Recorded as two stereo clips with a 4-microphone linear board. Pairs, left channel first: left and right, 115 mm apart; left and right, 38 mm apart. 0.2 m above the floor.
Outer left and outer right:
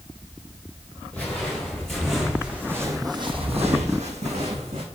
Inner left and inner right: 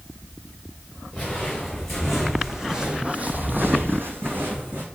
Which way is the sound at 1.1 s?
10° left (ahead or behind).